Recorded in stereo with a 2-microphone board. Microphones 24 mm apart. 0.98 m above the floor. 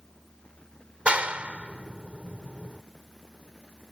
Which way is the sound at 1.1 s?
60° right (ahead or behind).